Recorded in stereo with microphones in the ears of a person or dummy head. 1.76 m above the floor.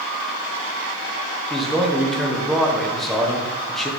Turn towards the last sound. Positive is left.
turn(degrees=5)  # may be behind; listen again after turning